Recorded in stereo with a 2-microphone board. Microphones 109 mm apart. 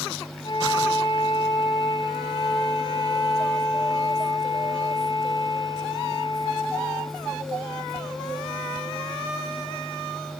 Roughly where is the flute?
Left.